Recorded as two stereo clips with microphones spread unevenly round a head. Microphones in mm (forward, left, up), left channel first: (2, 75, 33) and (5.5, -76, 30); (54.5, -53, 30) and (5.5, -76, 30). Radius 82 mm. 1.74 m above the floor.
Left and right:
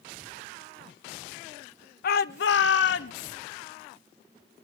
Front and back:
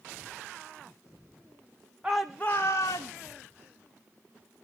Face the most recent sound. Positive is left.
turn(degrees=75)